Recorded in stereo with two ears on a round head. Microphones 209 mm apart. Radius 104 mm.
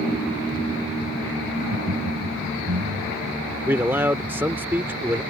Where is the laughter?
70° right (ahead or behind).